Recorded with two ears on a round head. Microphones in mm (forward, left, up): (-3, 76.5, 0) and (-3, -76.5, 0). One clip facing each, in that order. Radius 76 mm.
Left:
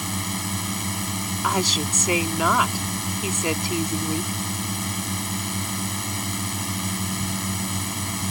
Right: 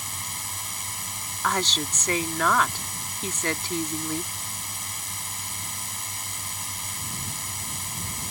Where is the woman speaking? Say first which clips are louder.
Left 2 dB; 10° left (ahead or behind).